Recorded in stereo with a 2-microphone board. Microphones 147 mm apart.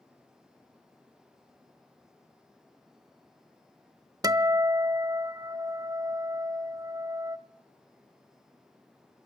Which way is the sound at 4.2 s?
25° right (ahead or behind).